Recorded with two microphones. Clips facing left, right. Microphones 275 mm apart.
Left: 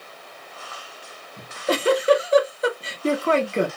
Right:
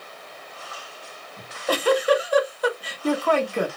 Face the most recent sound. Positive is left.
turn(degrees=25)  # may be behind; listen again after turning